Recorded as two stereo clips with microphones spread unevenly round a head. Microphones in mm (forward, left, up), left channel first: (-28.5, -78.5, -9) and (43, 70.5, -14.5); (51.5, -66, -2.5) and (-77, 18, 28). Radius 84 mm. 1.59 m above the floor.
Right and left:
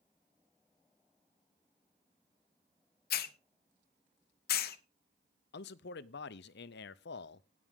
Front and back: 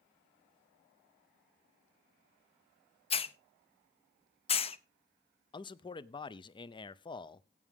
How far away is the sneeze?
No sneeze in this recording.